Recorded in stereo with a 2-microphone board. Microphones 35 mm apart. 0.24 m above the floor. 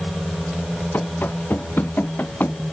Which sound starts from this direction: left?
Running footsteps, at 0.9 s.